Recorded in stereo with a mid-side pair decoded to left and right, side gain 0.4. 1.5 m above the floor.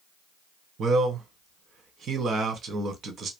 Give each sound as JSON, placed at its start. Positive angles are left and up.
{"t": 0.8, "sound": "a man speaking", "azimuth_deg": -65, "distance_m": 1.2}